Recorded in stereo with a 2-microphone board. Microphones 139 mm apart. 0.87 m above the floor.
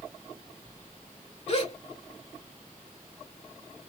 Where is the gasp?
45° left (ahead or behind), 1.0 m.